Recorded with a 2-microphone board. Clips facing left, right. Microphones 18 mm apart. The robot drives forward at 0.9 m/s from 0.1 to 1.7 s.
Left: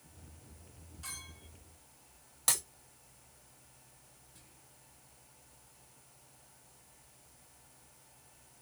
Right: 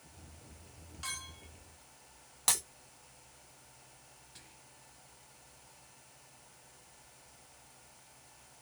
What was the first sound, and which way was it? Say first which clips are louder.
A clink: right 5 dB; 60° right (ahead or behind).